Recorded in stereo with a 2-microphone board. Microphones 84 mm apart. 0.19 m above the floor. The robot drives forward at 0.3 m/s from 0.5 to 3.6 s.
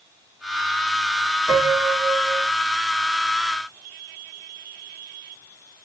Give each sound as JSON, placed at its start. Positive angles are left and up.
{"t": 1.5, "sound": "a piano", "side_deg": -20, "distance_m": 1.2}